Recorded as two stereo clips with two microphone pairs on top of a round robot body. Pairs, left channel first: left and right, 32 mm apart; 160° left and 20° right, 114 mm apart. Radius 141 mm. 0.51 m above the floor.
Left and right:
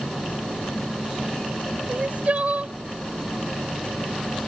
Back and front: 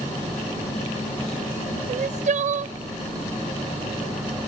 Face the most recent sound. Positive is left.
turn(degrees=-40)